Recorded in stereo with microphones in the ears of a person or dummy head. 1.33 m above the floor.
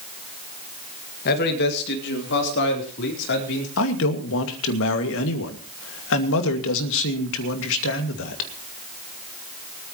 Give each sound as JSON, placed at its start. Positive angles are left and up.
{"t": 1.2, "sound": "a man speaking", "side_deg": 50, "distance_m": 2.0}
{"t": 3.8, "sound": "a man speaking", "side_deg": 70, "distance_m": 2.5}